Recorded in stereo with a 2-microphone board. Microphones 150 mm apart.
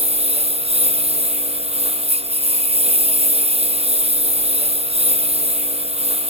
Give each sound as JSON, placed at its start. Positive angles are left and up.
{"t": 0.0, "sound": "a lawn mower", "side_deg": -40}